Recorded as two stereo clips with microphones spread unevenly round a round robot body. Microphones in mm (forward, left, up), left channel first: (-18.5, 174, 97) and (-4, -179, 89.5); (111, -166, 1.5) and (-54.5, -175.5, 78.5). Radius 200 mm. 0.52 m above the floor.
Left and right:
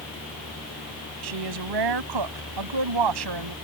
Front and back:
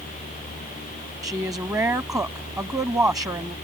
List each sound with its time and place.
1.2 s a woman speaking: 100° right